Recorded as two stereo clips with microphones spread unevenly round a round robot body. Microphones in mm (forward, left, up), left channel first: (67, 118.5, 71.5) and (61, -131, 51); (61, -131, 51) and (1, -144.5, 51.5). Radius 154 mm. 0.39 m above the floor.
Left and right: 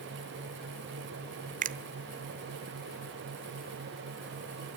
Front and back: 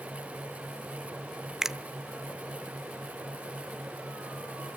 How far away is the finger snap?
About 0.8 m.